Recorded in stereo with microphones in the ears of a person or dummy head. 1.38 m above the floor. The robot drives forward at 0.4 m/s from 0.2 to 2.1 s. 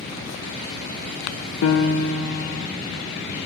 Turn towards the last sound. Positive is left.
turn(degrees=80)